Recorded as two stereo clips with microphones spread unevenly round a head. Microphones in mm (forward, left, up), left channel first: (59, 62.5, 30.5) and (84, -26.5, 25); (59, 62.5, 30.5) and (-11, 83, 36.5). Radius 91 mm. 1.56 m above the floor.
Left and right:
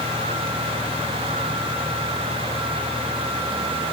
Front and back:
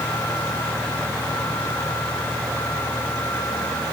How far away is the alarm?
No alarm in this recording.